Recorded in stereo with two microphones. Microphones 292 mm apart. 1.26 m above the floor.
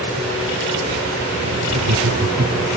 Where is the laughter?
75° right (ahead or behind).